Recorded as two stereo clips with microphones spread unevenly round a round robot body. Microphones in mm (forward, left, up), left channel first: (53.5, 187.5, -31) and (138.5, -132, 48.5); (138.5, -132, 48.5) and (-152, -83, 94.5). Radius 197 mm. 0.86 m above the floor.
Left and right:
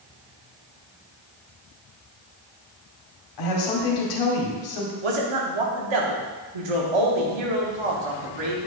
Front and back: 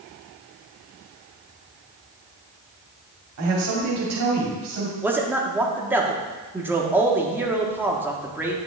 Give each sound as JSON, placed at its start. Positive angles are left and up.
{"t": 3.4, "sound": "a woman speaking", "azimuth_deg": 120, "distance_m": 2.0}
{"t": 5.0, "sound": "a man speaking", "azimuth_deg": -105, "distance_m": 1.6}